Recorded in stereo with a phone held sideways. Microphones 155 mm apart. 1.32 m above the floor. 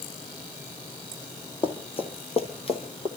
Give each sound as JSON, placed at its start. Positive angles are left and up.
{"t": 1.6, "sound": "running footsteps", "side_deg": 35, "distance_m": 1.7}